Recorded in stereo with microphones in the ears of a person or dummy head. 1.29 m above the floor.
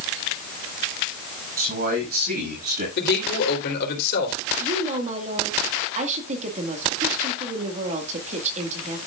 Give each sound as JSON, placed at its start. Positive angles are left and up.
{"t": 1.6, "sound": "a man speaking", "side_deg": -45, "distance_m": 8.0}
{"t": 3.0, "sound": "a man speaking", "side_deg": 55, "distance_m": 3.5}
{"t": 4.6, "sound": "a woman speaking", "side_deg": -40, "distance_m": 2.0}